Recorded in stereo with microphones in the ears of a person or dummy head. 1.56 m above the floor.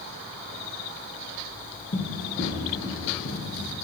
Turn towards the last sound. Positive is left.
turn(degrees=60)  # may be behind; listen again after turning